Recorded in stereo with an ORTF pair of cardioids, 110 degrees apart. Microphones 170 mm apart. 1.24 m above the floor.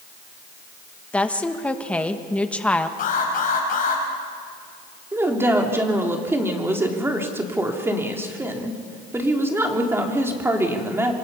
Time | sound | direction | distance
1.1 | a woman speaking | 5° left | 1.7 m
3.0 | an alarm | 50° left | 6 m
5.1 | a woman speaking | 15° right | 3.5 m